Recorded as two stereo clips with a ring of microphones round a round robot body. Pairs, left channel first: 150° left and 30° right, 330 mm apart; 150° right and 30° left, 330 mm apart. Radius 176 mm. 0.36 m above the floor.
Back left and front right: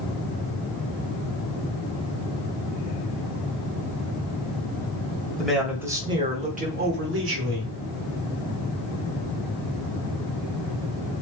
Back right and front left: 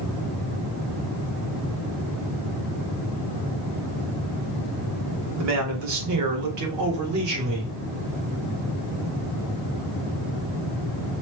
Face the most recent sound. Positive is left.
turn(degrees=5)